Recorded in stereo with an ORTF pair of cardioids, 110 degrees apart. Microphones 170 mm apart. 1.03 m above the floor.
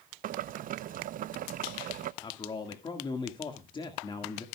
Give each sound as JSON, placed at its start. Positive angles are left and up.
{"t": 0.2, "sound": "boiling", "azimuth_deg": -55, "distance_m": 0.6}
{"t": 2.2, "sound": "a man speaking", "azimuth_deg": 30, "distance_m": 1.8}